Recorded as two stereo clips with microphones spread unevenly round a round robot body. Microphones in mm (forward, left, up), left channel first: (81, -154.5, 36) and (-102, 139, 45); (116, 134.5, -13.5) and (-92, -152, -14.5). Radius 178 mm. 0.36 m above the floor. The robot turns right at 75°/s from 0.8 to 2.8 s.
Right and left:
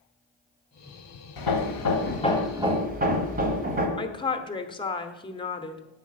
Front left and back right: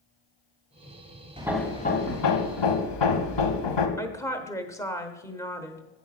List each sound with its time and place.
1.4 s hammering: 50° right, 1.5 m; by 3.9 s 55° left, 1.5 m
4.0 s a woman speaking: 15° right, 1.0 m